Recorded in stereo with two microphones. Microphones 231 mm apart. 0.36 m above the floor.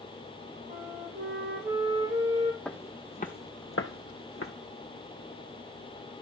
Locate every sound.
0.7 s a flute: 45° right (ahead or behind), 3 m
2.6 s footsteps: 5° left (ahead or behind), 0.7 m; by 4.5 s 70° left (ahead or behind), 1.0 m